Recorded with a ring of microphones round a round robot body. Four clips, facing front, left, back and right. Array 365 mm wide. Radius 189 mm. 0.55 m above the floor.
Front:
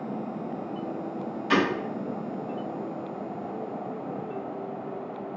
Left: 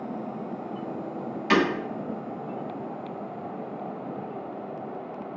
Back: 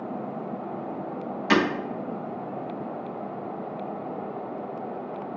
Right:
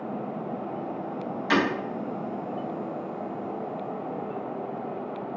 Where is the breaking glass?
165° left, 1.3 m.